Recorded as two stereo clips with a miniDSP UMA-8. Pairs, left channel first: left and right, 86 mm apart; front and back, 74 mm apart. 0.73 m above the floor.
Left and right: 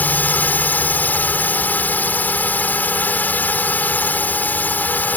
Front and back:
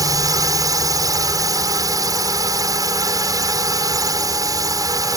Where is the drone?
155° left.